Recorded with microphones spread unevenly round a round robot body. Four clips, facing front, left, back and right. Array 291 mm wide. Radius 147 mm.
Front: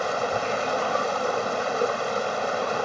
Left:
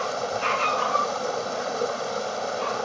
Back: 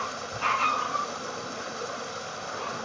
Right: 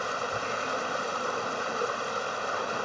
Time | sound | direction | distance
0.0 | running water | 30° left | ?